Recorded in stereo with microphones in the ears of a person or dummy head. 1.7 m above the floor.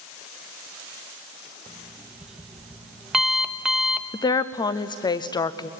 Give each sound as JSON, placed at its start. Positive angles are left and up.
{"t": 1.7, "sound": "an alarm clock", "side_deg": -5, "distance_m": 1.0}
{"t": 4.1, "sound": "a woman speaking", "side_deg": 25, "distance_m": 0.6}